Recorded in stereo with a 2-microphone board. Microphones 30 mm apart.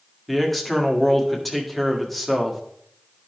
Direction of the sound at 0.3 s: Centre (ahead or behind).